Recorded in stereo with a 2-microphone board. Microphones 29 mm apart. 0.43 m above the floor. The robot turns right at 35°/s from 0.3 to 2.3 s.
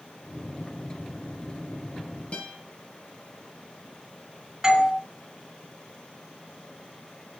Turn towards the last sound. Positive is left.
turn(degrees=-20)  # may be behind; listen again after turning